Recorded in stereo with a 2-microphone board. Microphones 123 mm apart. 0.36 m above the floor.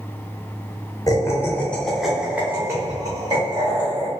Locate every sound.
1.1 s laughter: 30° left (ahead or behind), 0.9 m; by 4.1 s 45° right (ahead or behind), 1.4 m